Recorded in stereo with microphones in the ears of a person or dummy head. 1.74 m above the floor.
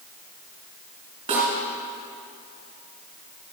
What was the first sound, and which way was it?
A snare drum, 30° right (ahead or behind).